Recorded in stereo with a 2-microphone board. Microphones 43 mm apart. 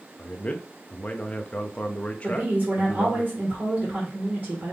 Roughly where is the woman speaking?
Right.